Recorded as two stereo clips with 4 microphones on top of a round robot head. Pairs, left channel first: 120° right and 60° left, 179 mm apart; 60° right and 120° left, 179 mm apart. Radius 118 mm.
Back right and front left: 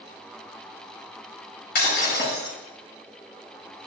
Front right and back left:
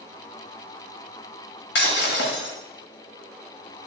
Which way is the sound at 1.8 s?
85° right.